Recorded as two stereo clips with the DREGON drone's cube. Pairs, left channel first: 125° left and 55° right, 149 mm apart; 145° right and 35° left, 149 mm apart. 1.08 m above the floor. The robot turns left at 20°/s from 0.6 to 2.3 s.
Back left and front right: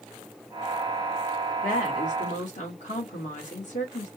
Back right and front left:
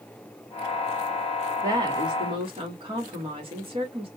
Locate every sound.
1.6 s a woman speaking: 100° left, 2.5 m; by 4.1 s 90° left, 2.5 m